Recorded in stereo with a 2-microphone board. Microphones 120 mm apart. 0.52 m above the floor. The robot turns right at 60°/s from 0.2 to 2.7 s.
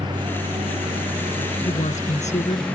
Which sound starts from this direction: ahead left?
A woman speaking, at 1.6 s.